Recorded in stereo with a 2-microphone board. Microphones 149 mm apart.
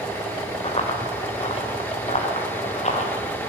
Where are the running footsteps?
40° left (ahead or behind), 5 m; by 3.1 s 50° left (ahead or behind), 6.5 m.